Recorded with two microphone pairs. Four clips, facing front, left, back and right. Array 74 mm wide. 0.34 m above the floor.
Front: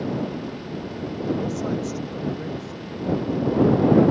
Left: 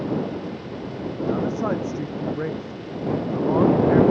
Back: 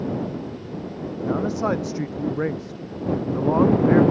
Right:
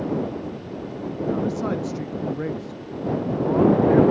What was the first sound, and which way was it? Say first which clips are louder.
A man speaking: left 1 dB, back 3 dB; 165° left.